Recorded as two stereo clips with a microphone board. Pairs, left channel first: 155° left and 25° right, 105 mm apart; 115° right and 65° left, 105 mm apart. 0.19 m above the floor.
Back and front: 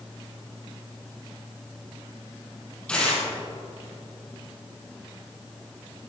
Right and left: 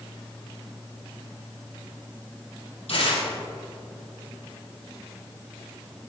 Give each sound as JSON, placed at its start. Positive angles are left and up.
{"t": 2.9, "sound": "tearing paper", "azimuth_deg": -120, "distance_m": 6.5}